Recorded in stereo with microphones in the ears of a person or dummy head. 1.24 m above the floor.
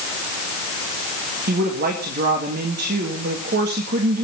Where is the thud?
I don't hear a thud.